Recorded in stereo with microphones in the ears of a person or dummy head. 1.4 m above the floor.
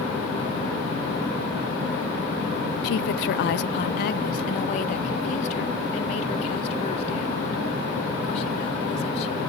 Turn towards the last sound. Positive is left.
turn(degrees=50)  # may be behind; listen again after turning